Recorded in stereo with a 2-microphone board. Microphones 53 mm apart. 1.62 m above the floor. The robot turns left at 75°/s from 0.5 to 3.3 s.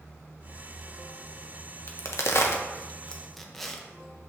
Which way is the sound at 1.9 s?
55° left (ahead or behind).